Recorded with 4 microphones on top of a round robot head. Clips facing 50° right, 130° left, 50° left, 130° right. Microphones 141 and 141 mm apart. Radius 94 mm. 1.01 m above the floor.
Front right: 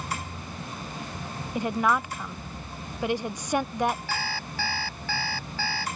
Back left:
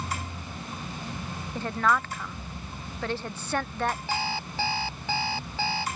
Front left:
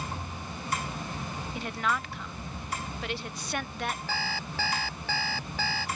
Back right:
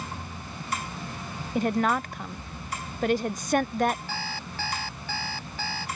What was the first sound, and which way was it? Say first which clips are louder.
A woman speaking: front right 1 dB, back right 8 dB; 120° right.